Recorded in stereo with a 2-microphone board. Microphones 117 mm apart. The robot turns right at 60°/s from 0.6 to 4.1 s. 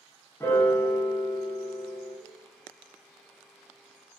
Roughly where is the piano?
Ahead left.